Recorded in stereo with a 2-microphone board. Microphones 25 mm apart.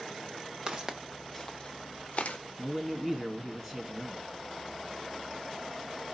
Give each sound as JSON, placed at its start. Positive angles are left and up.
{"t": 0.7, "sound": "footsteps", "side_deg": -35, "distance_m": 1.0}
{"t": 2.6, "sound": "a man speaking", "side_deg": -10, "distance_m": 1.0}